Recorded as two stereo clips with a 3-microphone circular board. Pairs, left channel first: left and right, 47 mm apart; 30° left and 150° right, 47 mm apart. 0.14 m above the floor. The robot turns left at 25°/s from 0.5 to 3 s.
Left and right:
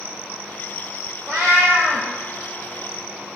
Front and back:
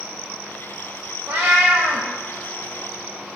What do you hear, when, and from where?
1.3 s a cat meowing: 170° right, 1.7 m; by 2.1 s 170° left, 1.7 m